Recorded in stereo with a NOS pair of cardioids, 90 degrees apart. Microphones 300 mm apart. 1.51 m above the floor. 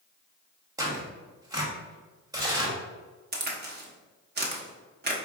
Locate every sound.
0.8 s tearing paper: 10° right, 1.2 m
3.3 s a crack: 35° right, 0.9 m